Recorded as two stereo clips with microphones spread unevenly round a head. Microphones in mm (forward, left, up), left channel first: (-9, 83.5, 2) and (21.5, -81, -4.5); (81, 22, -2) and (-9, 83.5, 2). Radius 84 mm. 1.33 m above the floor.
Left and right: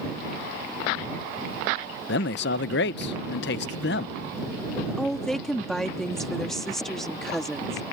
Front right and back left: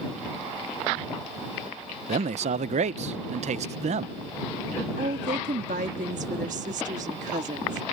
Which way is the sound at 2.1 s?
130° left.